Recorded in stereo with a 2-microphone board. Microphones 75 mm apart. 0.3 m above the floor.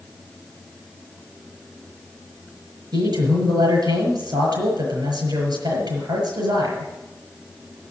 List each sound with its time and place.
2.9 s a man speaking: 70° right (ahead or behind), 6 m